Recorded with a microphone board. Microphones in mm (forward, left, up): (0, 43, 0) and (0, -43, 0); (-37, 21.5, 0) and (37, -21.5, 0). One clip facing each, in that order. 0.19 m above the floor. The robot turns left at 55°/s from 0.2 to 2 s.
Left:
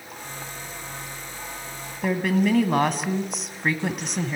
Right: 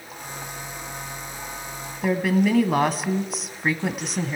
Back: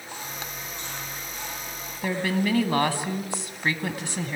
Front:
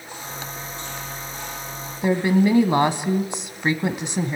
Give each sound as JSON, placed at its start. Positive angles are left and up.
{"t": 2.0, "sound": "a woman speaking", "azimuth_deg": -5, "distance_m": 1.2}